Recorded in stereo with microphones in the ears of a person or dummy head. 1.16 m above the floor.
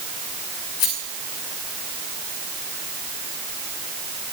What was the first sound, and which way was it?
A rattle, 85° left.